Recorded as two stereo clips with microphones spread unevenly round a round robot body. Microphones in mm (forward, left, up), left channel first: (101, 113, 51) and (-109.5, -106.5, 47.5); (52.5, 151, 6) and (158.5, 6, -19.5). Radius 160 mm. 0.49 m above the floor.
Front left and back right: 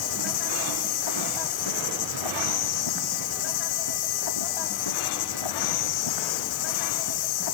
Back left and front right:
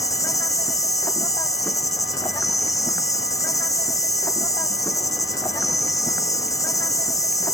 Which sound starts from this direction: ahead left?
An insect, at 0.0 s.